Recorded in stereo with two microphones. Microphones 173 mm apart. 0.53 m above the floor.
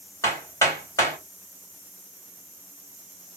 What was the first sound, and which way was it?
Hammering, 20° left (ahead or behind).